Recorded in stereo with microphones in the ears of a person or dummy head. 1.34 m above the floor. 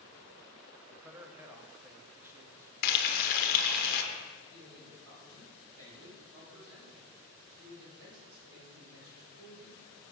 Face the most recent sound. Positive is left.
turn(degrees=-80)